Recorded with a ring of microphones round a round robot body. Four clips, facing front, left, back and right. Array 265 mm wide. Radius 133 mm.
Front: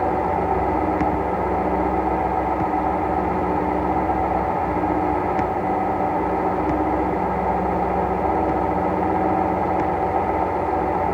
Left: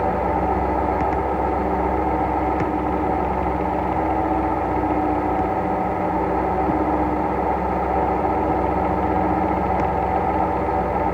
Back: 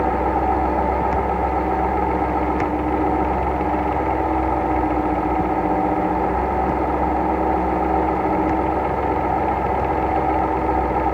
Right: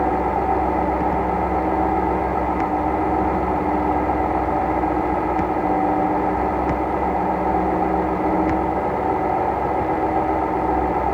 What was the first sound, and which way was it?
Only background noise.